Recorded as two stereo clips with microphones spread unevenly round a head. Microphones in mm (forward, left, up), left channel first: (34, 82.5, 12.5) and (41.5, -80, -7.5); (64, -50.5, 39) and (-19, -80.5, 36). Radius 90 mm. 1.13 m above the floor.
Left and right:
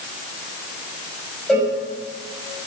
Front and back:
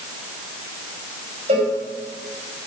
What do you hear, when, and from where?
1.5 s a cowbell: straight behind, 5 m